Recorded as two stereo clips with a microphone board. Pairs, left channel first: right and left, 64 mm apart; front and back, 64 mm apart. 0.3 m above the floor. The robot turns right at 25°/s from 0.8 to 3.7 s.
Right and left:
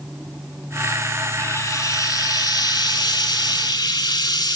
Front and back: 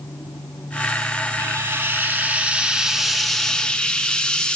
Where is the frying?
135° right, 0.7 m; by 4.6 s 80° right, 0.7 m.